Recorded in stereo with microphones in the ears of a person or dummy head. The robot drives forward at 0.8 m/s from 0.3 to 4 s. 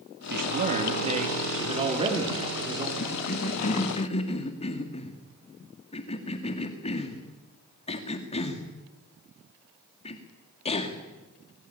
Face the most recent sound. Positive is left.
turn(degrees=35)  # may be behind; listen again after turning